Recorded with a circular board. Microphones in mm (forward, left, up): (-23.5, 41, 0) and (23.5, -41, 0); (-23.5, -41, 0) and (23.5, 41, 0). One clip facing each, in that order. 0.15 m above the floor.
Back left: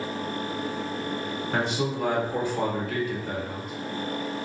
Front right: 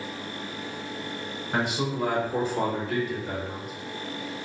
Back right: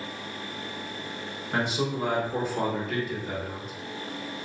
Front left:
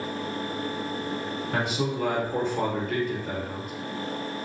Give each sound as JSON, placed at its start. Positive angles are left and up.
{"t": 1.5, "sound": "a man speaking", "azimuth_deg": -130, "distance_m": 1.7}